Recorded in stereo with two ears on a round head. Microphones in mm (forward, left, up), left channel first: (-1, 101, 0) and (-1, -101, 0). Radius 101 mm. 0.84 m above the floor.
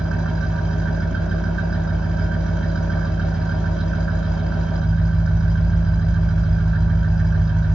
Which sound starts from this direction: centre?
An engine running, at 0.0 s.